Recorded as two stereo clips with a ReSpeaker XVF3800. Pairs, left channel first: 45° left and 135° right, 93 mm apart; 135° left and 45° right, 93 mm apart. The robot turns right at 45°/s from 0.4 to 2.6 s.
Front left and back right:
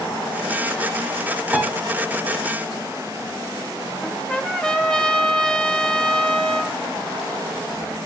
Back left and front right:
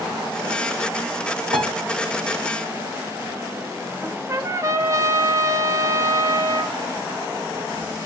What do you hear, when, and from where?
1.5 s a piano: 55° right, 3 m; by 1.7 s 45° right, 3 m
4.0 s a trumpet: 30° right, 1.0 m